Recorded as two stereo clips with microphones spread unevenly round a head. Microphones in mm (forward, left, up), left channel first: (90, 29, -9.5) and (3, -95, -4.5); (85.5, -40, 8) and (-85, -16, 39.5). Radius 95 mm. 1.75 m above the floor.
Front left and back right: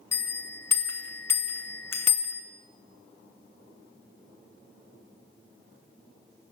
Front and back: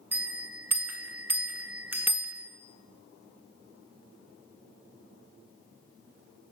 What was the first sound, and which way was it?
A bell, 120° left.